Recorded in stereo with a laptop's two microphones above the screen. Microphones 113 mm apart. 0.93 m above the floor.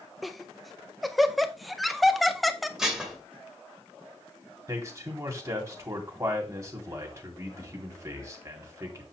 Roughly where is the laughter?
Centre.